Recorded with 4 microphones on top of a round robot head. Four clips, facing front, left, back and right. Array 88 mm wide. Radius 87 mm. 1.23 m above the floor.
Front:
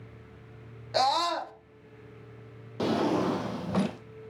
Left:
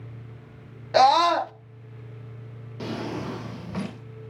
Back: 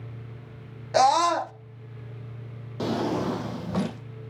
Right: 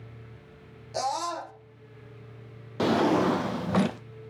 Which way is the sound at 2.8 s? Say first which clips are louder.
Right 9 dB, even; 90° right.